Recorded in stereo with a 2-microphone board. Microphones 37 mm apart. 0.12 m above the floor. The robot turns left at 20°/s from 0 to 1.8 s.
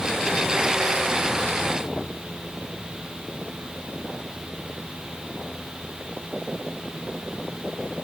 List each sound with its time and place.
Only background noise.